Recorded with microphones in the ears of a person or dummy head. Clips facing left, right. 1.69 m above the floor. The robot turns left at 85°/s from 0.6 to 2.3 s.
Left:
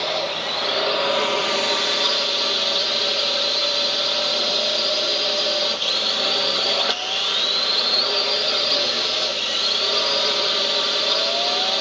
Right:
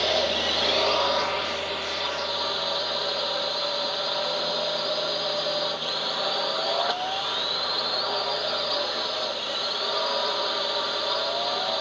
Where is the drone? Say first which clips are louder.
Right 1 dB; 175° right; by 11.8 s 40° left.